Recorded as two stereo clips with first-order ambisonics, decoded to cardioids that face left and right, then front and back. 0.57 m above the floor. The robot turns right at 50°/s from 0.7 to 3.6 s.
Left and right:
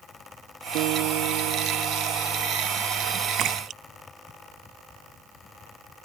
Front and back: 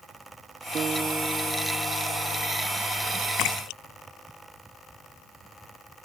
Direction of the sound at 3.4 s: 40° right.